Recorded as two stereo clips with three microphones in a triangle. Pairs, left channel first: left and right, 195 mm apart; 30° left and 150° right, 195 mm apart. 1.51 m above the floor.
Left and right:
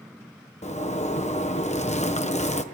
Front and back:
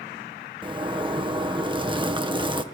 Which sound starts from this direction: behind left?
A zipper, at 0.6 s.